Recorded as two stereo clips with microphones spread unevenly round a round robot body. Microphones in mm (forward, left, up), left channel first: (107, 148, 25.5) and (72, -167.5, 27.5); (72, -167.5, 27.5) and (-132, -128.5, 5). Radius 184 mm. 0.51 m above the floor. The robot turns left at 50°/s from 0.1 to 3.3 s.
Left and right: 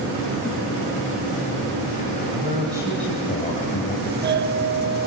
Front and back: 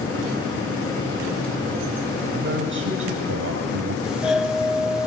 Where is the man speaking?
155° right, 3.5 m; by 4.0 s 155° left, 3.5 m.